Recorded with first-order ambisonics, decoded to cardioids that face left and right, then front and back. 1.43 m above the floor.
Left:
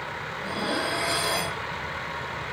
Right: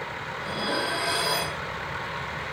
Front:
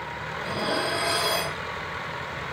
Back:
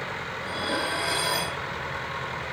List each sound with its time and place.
0.4 s dishes clattering: 5° left, 4 m